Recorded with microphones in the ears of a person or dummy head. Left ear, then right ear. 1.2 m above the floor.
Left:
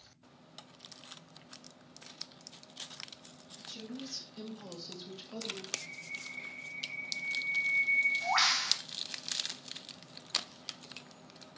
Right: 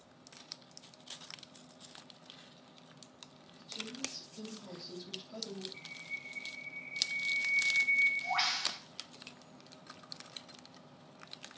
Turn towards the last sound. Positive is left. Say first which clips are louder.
# left 3 dB
turn(degrees=75)  # may be behind; listen again after turning